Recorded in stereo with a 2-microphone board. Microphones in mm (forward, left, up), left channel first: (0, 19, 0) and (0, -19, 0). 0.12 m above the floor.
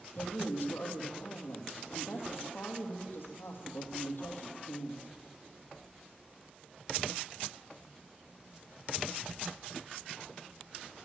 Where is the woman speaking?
65° left (ahead or behind), 3.5 m.